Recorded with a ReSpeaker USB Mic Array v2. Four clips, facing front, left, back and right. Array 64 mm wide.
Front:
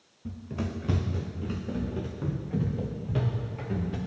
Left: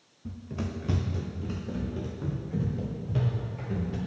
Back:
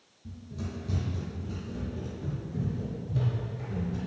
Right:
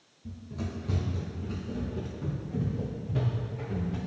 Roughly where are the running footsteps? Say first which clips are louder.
Left 2 dB, front 6 dB; ahead left.